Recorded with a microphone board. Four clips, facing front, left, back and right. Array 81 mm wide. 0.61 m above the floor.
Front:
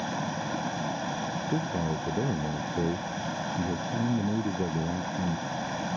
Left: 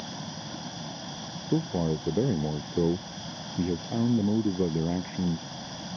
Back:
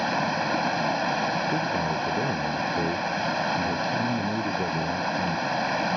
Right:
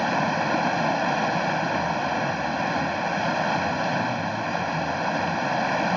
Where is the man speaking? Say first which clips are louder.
Right 3 dB, back 4 dB; 90° left.